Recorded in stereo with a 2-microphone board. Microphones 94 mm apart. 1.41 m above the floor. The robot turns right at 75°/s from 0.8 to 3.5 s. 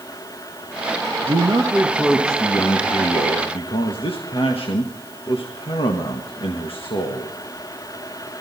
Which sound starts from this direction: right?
A man speaking, at 1.2 s.